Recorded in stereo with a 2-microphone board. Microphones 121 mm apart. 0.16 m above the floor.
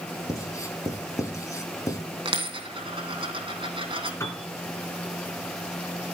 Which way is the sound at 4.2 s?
25° left (ahead or behind).